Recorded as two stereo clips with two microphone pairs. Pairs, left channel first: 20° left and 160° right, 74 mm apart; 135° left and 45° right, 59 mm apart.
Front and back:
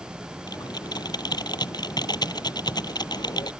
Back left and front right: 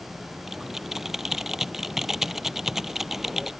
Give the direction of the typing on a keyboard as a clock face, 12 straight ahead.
11 o'clock.